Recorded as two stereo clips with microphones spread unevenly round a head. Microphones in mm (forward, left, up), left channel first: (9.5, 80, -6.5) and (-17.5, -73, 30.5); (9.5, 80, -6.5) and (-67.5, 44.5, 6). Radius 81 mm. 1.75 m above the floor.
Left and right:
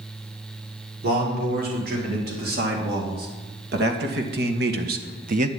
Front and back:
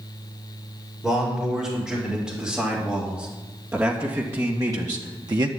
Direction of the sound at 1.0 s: 70° right.